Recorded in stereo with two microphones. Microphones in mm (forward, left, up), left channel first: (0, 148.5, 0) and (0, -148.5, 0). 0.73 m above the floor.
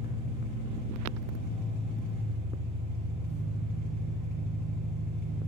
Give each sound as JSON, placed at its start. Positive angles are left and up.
{"t": 0.0, "sound": "an engine running", "side_deg": -75, "distance_m": 2.5}